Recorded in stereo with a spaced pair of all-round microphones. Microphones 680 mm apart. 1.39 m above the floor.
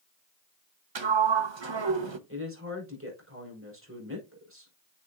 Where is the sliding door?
40° right (ahead or behind), 0.9 m.